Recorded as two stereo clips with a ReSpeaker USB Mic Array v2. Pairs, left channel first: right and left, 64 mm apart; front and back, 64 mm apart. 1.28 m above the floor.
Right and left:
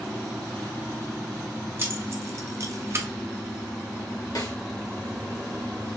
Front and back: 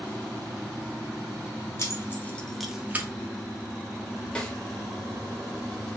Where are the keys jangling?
40° left, 1.0 m; by 3.1 s 130° left, 0.7 m.